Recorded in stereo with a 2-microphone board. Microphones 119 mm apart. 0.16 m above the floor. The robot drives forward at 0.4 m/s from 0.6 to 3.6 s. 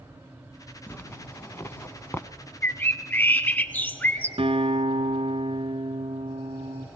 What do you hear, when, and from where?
0.9 s a zipper: 15° left (ahead or behind), 0.7 m; by 2.3 s 20° left (ahead or behind), 0.6 m
2.6 s a bird: 15° left (ahead or behind), 0.8 m
4.4 s a guitar: 55° right (ahead or behind), 1.3 m